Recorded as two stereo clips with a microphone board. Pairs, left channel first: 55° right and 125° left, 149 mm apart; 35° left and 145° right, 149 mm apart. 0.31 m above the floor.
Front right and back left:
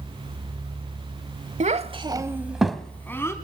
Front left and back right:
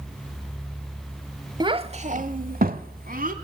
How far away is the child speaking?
About 0.9 m.